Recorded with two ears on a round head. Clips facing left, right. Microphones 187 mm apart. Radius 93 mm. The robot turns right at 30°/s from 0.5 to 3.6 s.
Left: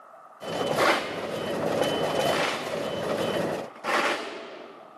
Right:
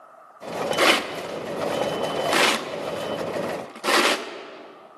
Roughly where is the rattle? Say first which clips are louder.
Right 2 dB; right.